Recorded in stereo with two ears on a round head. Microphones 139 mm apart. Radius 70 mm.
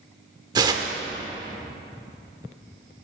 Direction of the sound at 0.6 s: 30° right (ahead or behind).